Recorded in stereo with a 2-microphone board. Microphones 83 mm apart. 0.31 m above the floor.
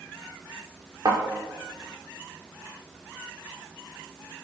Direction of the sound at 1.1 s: 50° right (ahead or behind).